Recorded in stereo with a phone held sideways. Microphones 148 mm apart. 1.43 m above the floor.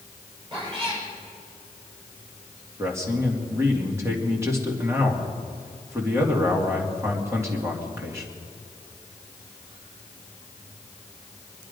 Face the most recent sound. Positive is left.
turn(degrees=-20)  # may be behind; listen again after turning